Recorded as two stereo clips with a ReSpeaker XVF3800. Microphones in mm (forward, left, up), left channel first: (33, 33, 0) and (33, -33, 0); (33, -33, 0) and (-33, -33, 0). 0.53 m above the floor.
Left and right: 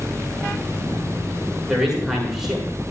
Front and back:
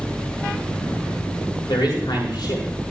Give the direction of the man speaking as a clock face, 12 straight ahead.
12 o'clock.